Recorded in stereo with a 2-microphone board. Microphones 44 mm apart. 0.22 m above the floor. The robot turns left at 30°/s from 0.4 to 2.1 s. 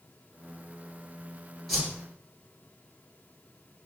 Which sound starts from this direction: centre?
A whoosh, at 1.7 s.